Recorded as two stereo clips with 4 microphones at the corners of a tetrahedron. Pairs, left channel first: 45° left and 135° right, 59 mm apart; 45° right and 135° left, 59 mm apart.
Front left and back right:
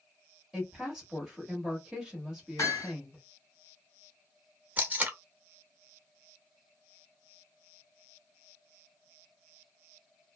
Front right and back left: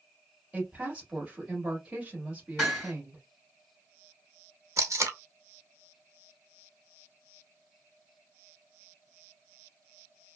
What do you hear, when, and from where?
0.5 s a woman speaking: 165° left, 1.3 m
2.6 s hammering: 55° left, 1.4 m
4.8 s tape being pulled: 165° left, 0.7 m